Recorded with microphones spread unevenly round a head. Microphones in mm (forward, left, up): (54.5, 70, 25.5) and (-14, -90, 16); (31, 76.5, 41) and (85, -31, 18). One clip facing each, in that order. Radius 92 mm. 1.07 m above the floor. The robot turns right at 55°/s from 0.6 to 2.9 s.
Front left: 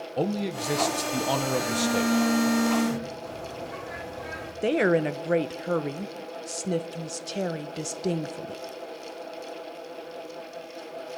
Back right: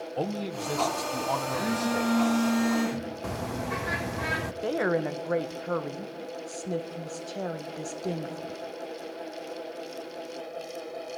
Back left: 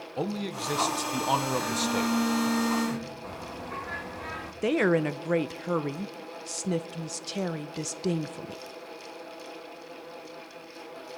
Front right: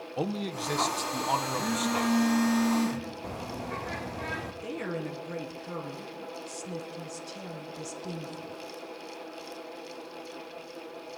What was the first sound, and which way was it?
A man speaking, 5° left.